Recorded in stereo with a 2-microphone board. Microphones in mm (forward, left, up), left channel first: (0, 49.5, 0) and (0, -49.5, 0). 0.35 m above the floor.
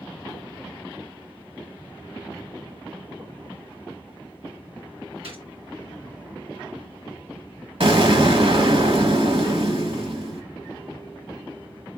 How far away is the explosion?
About 1.0 m.